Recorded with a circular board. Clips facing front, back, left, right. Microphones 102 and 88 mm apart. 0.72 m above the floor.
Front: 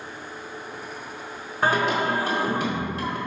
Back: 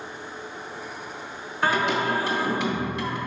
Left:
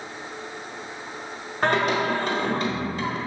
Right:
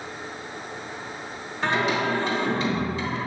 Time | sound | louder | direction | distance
1.6 | singing | front 1 dB, left 2 dB | 50° left | 1.0 m